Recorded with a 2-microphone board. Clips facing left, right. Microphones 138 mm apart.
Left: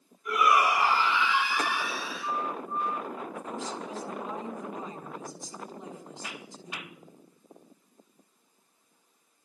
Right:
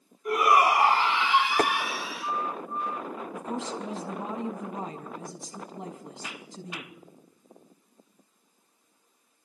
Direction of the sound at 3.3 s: 65° right (ahead or behind).